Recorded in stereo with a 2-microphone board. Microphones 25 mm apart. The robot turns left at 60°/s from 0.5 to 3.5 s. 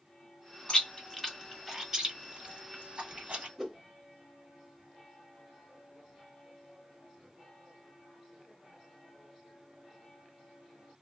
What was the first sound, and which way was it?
Chewing, 40° left (ahead or behind).